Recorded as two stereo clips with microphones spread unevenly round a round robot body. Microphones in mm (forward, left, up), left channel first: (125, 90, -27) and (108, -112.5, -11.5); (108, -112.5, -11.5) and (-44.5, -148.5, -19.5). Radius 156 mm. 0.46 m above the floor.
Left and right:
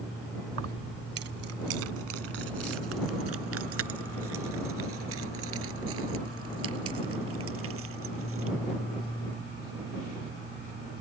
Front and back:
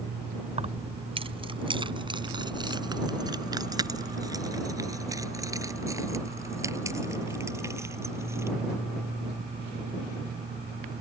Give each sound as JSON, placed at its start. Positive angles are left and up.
{"t": 0.5, "sound": "keys jangling", "azimuth_deg": -120}